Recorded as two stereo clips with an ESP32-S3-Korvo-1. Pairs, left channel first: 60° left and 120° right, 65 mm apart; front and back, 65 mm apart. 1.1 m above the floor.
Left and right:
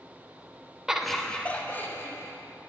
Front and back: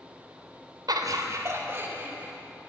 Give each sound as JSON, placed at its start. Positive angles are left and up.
{"t": 0.9, "sound": "laughter", "azimuth_deg": 160, "distance_m": 0.7}